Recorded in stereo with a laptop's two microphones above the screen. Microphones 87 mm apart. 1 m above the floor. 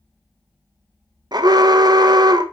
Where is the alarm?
50° right (ahead or behind), 0.7 m.